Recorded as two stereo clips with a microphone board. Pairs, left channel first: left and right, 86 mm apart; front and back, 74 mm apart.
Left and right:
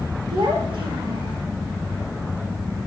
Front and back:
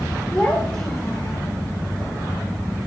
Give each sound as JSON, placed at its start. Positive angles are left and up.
{"t": 0.3, "sound": "a child speaking", "azimuth_deg": -85, "distance_m": 3.0}